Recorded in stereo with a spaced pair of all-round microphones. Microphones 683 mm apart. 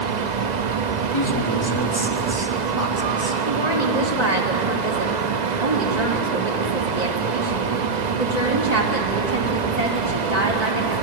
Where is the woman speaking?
70° right (ahead or behind), 2.5 m.